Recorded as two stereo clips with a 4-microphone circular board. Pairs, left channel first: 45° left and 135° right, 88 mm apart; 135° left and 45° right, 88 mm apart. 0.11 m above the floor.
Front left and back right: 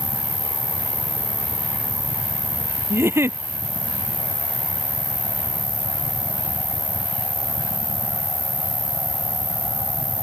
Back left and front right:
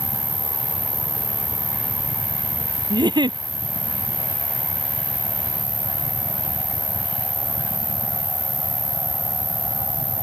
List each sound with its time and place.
0.0 s an insect: 120° right
2.9 s a giggle: 75° right